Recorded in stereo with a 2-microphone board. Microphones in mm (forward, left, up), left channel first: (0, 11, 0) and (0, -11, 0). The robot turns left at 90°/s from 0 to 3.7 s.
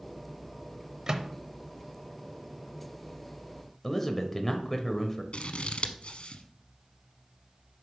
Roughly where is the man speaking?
Centre.